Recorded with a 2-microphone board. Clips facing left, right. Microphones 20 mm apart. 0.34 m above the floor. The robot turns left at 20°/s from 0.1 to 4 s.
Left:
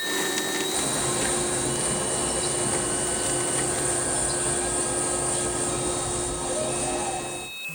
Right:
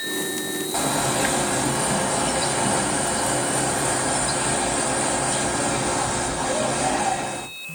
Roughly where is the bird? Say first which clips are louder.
Right 4 dB; ahead right.